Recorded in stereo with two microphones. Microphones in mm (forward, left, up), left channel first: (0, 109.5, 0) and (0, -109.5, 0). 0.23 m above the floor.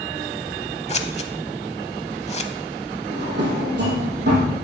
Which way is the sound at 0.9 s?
30° left (ahead or behind).